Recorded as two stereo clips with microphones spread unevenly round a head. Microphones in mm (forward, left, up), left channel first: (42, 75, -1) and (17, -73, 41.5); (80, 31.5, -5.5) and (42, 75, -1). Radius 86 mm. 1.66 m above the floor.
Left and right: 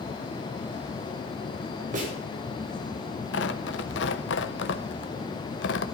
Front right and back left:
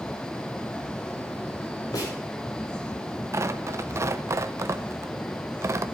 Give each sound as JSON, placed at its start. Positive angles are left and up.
{"t": 1.9, "sound": "a snare drum", "azimuth_deg": -60, "distance_m": 7.5}
{"t": 3.3, "sound": "tearing paper", "azimuth_deg": 110, "distance_m": 0.9}